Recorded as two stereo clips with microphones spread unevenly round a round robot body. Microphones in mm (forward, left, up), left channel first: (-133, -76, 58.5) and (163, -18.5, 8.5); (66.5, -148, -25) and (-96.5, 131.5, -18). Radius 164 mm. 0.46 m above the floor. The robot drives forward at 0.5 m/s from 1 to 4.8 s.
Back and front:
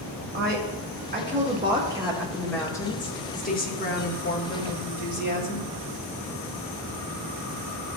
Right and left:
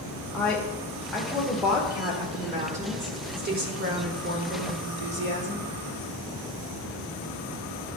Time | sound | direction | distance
0.3 | a woman speaking | 25° left | 1.4 m